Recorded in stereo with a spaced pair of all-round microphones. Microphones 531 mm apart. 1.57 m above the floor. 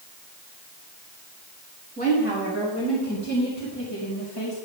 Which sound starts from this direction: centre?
A woman speaking, at 2.0 s.